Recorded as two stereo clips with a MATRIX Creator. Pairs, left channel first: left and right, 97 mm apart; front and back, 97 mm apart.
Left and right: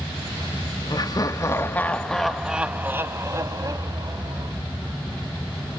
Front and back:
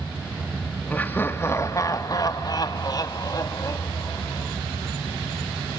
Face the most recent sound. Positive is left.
turn(degrees=-50)